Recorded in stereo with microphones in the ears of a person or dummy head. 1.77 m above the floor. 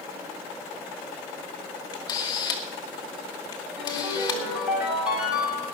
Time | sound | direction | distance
1.9 | a camera shutter | 20° left (ahead or behind) | 1.4 m
3.8 | a ringtone | 5° right (ahead or behind) | 6 m